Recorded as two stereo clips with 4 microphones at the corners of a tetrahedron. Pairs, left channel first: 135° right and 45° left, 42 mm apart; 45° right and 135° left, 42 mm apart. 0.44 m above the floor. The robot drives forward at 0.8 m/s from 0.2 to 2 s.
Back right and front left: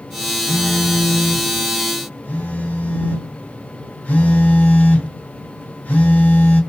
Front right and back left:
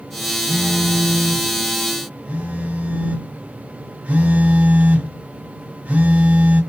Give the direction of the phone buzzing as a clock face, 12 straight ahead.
6 o'clock.